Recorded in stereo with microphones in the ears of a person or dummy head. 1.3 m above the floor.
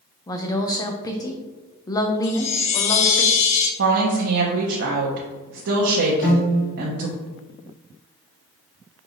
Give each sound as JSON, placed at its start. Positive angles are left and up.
{"t": 0.3, "sound": "a woman speaking", "side_deg": 30, "distance_m": 0.6}
{"t": 2.2, "sound": "a chime", "side_deg": 65, "distance_m": 1.0}
{"t": 3.8, "sound": "a woman speaking", "side_deg": -75, "distance_m": 0.8}
{"t": 6.2, "sound": "a piano", "side_deg": 40, "distance_m": 1.5}